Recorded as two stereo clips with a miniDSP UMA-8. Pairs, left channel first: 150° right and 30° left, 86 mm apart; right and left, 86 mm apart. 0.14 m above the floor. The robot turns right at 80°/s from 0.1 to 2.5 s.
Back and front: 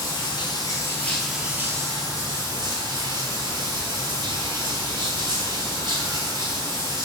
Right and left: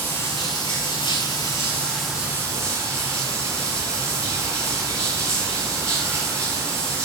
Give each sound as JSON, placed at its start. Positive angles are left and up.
{"t": 0.0, "sound": "running water", "azimuth_deg": -155, "distance_m": 1.1}